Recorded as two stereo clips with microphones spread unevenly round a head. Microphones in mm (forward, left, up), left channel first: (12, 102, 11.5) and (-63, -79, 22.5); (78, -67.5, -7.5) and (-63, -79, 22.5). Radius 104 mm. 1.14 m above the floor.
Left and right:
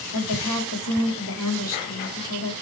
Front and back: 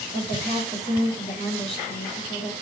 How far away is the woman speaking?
About 3 m.